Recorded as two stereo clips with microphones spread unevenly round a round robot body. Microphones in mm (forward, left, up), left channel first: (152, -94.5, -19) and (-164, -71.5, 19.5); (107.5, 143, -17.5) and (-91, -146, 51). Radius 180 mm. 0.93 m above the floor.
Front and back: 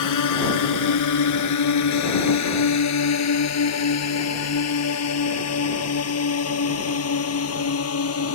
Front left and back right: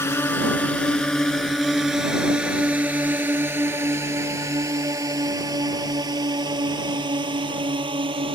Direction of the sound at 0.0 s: 30° right.